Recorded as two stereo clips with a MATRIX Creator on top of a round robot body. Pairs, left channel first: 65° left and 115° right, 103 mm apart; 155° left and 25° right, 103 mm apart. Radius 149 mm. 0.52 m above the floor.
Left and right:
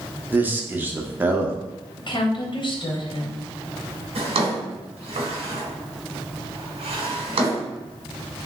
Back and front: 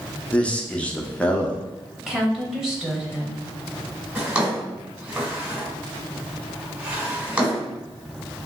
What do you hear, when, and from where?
0.3 s a man speaking: 150° right, 0.7 m
2.0 s a woman speaking: 60° left, 0.9 m
4.2 s a drawer: 100° right, 1.3 m